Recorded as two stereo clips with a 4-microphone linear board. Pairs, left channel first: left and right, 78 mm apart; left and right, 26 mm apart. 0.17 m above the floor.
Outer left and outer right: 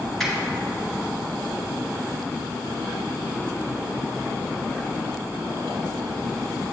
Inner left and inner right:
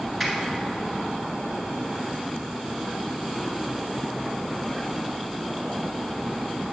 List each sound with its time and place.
0.2 s a finger snap: 5° left (ahead or behind), 1.9 m